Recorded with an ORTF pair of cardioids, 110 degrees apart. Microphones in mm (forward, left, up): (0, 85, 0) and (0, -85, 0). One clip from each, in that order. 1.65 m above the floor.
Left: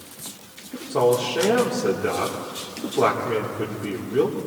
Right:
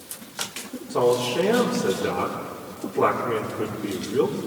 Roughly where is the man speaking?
Ahead.